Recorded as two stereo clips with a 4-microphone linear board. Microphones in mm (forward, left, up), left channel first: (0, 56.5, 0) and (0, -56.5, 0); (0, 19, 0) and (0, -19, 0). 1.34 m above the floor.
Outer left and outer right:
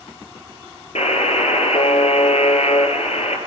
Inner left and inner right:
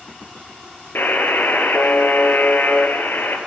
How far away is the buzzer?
About 4.5 m.